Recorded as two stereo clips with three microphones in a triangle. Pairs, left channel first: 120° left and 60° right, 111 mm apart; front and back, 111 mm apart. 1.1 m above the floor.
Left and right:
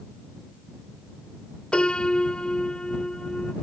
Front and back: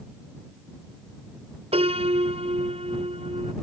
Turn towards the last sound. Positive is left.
turn(degrees=-160)